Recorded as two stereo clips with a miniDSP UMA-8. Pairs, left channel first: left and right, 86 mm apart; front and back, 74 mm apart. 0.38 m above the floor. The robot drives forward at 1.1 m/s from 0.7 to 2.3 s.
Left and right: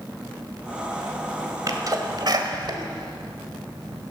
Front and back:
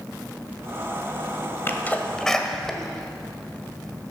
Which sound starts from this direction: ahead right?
A sneeze, at 1.7 s.